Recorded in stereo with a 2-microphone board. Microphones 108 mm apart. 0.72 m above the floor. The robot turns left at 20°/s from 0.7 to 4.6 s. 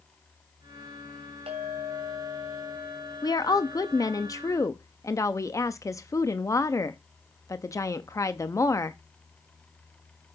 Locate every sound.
1.5 s a clink: 110° right, 3 m; by 4.2 s 165° right, 3 m
3.2 s a woman speaking: 40° left (ahead or behind), 0.6 m; by 9.0 s 30° left (ahead or behind), 0.6 m